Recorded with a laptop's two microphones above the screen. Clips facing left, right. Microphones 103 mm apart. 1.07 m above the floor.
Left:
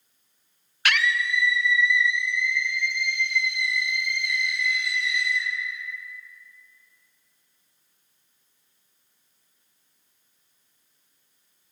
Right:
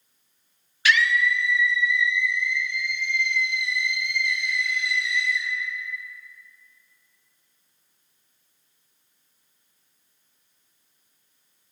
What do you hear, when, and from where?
0.8 s a scream: 60° left (ahead or behind), 0.5 m; by 5.5 s 70° left (ahead or behind), 3.5 m